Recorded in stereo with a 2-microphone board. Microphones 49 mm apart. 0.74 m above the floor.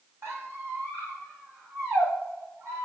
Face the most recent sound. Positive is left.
turn(degrees=-70)  # may be behind; listen again after turning